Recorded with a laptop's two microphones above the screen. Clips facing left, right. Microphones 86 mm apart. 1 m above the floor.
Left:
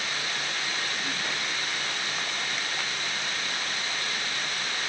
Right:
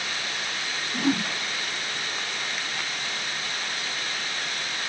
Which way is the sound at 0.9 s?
80° right.